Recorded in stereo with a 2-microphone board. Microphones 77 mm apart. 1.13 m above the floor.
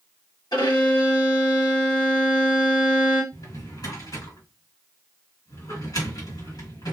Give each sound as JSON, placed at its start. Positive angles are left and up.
{"t": 0.5, "sound": "a violin", "side_deg": 75, "distance_m": 1.5}
{"t": 3.3, "sound": "a drawer", "side_deg": 55, "distance_m": 1.7}